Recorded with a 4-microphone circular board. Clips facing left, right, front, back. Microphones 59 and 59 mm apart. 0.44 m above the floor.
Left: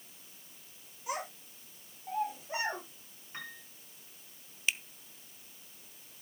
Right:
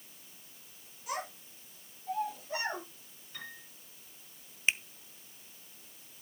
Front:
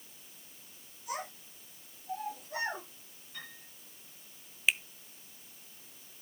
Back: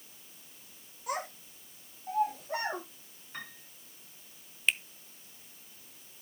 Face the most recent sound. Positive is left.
turn(degrees=-85)